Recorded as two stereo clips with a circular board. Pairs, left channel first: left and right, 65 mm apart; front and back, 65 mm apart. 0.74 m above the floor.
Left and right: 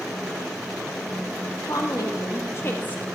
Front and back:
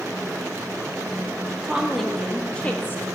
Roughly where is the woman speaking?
Left.